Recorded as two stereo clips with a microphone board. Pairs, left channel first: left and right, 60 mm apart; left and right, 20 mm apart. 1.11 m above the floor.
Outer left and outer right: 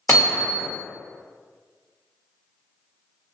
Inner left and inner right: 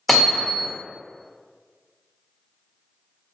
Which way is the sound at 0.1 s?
35° left (ahead or behind).